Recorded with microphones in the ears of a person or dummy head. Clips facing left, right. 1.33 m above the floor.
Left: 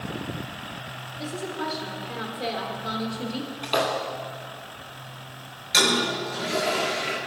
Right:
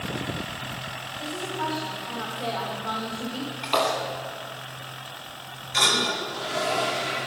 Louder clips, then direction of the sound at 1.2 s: Left 1 dB; 25° left (ahead or behind).